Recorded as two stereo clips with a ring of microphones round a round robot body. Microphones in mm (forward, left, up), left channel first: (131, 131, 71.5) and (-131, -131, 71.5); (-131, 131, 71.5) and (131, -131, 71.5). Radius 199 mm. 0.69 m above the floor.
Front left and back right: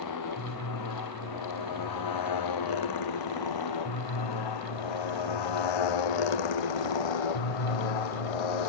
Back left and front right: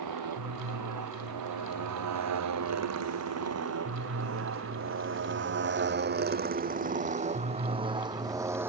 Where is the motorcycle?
Straight ahead; by 8.7 s 40° left.